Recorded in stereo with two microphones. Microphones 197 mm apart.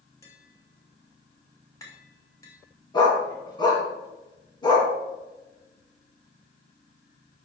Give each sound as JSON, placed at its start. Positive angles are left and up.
{"t": 0.2, "sound": "tapping", "side_deg": 15, "distance_m": 2.5}
{"t": 2.9, "sound": "a dog barking", "side_deg": 25, "distance_m": 3.0}